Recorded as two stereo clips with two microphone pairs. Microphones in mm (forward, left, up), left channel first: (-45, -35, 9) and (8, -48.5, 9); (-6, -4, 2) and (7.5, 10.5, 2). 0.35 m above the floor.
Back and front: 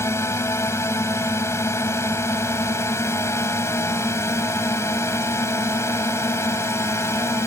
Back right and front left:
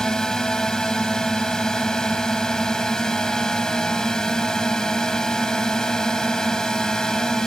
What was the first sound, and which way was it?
A drone, 170° left.